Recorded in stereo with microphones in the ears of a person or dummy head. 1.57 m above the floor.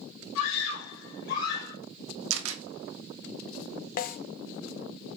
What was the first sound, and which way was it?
A scream, 80° left.